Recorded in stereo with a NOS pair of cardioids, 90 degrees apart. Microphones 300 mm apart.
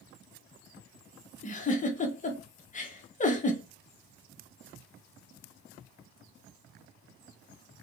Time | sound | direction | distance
1.4 | a giggle | 25° left | 0.9 m